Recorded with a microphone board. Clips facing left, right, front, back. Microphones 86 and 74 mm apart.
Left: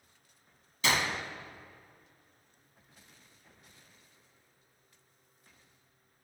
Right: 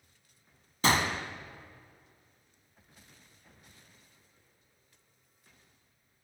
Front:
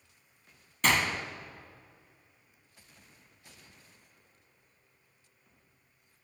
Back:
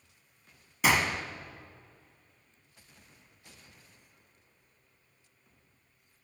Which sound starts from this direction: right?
A gunshot, at 0.8 s.